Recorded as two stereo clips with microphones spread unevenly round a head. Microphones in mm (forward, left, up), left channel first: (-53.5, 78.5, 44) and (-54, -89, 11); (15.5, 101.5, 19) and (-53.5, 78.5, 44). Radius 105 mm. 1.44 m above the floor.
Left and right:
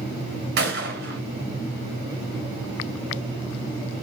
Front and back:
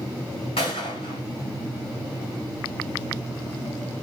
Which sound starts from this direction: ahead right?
A gunshot, at 0.6 s.